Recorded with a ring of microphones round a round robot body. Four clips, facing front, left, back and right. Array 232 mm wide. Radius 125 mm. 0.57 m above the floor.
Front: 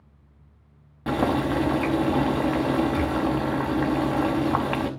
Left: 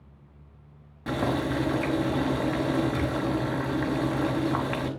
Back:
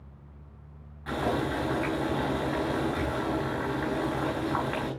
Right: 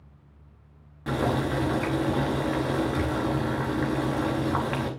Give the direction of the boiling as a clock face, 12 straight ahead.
12 o'clock.